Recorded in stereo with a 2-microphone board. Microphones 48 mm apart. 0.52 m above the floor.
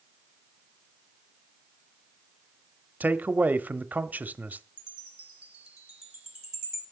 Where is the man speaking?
40° right (ahead or behind), 0.9 m.